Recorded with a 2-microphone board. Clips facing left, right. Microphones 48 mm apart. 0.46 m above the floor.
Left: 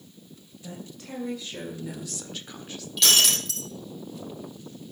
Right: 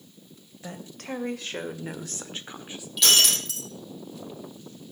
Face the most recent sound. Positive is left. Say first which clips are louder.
# even
turn(degrees=-5)  # may be behind; listen again after turning